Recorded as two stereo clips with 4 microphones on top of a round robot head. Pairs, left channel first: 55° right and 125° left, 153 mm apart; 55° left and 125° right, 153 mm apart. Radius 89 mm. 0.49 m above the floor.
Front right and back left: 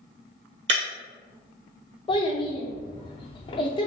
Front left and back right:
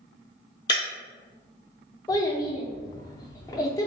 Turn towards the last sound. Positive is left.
turn(degrees=-5)